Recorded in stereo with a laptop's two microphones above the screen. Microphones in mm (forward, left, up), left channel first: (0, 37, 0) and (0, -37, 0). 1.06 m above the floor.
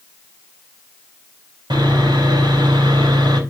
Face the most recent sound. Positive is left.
turn(degrees=-70)  # may be behind; listen again after turning